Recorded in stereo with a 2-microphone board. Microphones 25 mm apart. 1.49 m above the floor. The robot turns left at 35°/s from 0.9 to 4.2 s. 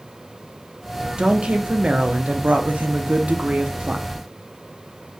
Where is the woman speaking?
45° right, 0.8 m; by 4.0 s 145° right, 0.8 m.